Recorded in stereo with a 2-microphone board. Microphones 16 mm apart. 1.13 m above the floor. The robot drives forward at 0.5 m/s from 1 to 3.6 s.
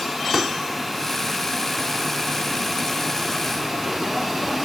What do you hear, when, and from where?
0.3 s a pop: 30° right (ahead or behind)